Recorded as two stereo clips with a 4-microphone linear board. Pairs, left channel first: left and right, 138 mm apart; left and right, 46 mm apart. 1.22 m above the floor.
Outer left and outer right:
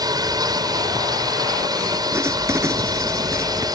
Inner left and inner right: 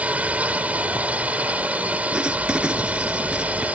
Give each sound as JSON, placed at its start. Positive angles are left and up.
{"t": 0.0, "sound": "a drone", "side_deg": -30}
{"t": 2.1, "sound": "writing", "side_deg": -20}